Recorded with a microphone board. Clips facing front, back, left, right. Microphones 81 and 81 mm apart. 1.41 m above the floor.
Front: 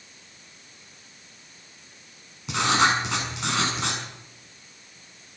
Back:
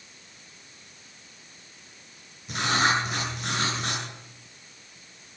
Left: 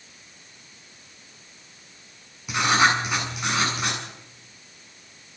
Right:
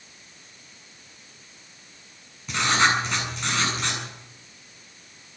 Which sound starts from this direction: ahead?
Writing, at 2.5 s.